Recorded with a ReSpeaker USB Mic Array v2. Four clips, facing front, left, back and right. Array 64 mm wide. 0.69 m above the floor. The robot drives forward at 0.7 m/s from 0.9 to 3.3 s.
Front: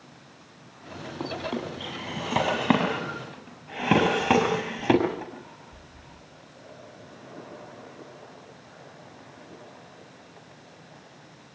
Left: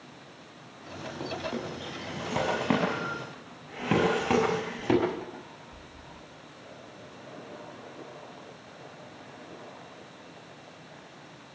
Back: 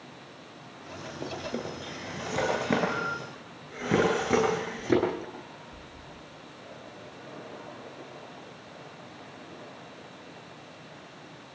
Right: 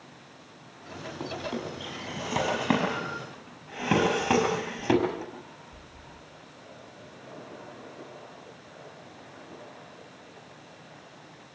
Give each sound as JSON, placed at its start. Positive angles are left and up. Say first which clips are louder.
{"t": 1.2, "sound": "a drawer", "louder": "even, front 4 dB", "azimuth_deg": -5, "distance_m": 8.0}